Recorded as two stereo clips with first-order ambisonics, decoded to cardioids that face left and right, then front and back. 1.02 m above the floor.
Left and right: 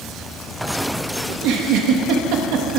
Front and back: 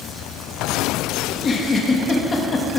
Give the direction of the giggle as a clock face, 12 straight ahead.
2 o'clock.